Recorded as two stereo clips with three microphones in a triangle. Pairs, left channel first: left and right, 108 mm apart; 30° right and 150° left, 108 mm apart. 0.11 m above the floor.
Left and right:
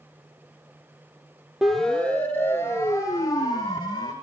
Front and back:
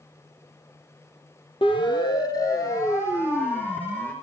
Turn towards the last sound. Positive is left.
turn(degrees=40)